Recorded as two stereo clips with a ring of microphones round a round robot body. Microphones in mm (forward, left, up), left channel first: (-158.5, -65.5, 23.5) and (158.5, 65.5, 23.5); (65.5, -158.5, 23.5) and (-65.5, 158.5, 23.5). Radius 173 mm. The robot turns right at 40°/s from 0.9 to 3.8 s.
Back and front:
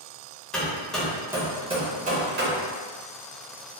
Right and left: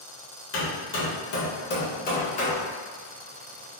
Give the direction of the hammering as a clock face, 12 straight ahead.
2 o'clock.